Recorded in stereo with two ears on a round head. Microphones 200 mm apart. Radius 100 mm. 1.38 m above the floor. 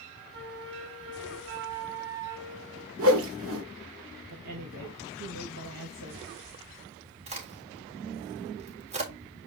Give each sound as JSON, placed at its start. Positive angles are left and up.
{"t": 0.3, "sound": "a flute", "side_deg": -70, "distance_m": 3.0}
{"t": 3.0, "sound": "a whoosh", "side_deg": -65, "distance_m": 1.9}
{"t": 4.3, "sound": "a woman speaking", "side_deg": -85, "distance_m": 2.0}
{"t": 7.3, "sound": "a crack", "side_deg": -30, "distance_m": 3.5}